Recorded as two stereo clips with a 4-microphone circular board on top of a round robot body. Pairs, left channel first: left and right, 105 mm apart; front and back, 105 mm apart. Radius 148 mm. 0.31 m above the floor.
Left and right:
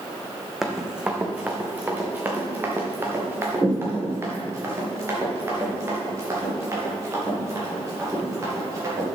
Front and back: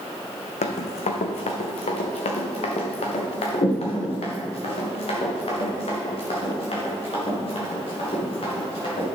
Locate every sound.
0.6 s running footsteps: 5° right, 1.1 m; by 9.2 s 30° right, 6.5 m